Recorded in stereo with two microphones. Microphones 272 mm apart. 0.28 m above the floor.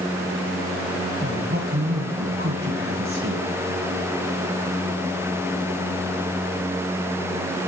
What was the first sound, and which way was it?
A man speaking, 50° right (ahead or behind).